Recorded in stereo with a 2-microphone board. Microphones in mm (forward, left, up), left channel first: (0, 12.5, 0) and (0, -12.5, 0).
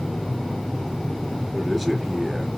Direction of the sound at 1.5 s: 5° right (ahead or behind).